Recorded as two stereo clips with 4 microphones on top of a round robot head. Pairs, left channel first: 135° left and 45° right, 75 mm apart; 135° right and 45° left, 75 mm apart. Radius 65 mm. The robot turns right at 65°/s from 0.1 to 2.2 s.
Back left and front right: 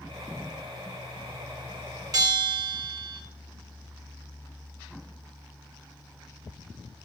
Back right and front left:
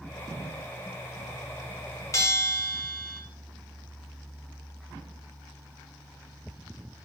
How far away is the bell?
About 3.5 m.